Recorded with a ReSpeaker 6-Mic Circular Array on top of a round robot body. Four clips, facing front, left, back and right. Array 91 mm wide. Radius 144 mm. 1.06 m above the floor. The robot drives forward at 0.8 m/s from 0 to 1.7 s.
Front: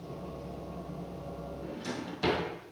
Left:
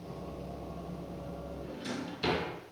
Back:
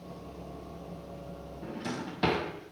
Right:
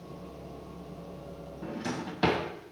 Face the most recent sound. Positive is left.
turn(degrees=-115)